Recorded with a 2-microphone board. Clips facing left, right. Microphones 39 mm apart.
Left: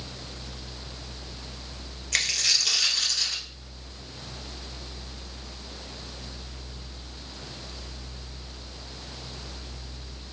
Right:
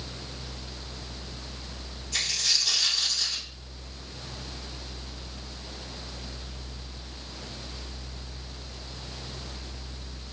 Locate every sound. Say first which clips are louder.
2.1 s a dropped coin: left 3 dB; 75° left (ahead or behind), 1.5 m